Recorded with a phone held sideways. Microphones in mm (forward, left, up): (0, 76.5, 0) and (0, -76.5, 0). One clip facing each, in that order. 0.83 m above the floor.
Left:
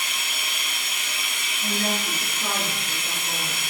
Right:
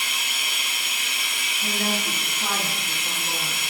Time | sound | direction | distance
0.0 | running water | 10° right (ahead or behind) | 1.3 m
1.6 | a woman speaking | 45° right (ahead or behind) | 1.3 m